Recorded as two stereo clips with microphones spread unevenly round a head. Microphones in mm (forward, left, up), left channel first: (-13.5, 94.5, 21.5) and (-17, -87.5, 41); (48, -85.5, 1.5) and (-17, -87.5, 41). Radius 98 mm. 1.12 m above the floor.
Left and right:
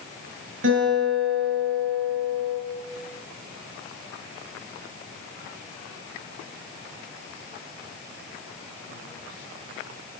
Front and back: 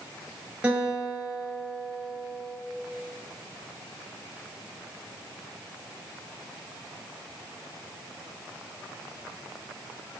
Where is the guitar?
110° right, 8 m.